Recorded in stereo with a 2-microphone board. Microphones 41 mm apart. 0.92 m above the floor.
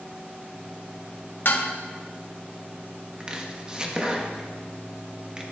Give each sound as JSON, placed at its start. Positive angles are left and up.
{"t": 1.4, "sound": "dishes clattering", "side_deg": 60, "distance_m": 1.0}
{"t": 3.2, "sound": "chopping", "side_deg": -25, "distance_m": 1.1}